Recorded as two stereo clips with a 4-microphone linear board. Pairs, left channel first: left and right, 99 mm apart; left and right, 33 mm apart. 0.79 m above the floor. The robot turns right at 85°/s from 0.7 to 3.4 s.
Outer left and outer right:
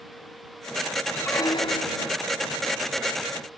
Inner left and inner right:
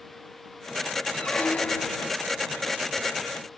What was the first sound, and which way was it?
A squeak, 15° left.